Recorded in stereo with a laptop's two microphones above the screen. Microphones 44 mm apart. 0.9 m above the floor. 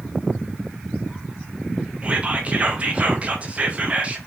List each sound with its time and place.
2.0 s whispering: 30° right (ahead or behind), 1.0 m